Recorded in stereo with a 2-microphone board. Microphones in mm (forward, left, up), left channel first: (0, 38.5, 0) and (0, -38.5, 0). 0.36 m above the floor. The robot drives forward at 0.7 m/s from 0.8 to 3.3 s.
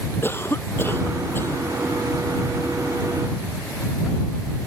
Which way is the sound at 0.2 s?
30° left (ahead or behind).